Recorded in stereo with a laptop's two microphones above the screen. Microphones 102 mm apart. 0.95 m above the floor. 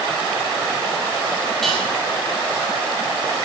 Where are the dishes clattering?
Centre (ahead or behind), 8.5 m.